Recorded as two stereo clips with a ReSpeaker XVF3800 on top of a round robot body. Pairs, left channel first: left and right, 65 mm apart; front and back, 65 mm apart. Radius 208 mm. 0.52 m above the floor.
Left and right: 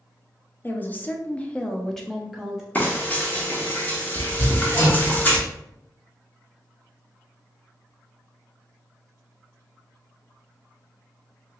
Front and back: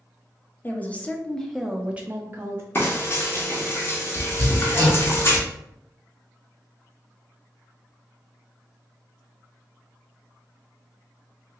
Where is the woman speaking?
45° left, 1.0 m; by 2.6 s 165° right, 1.0 m.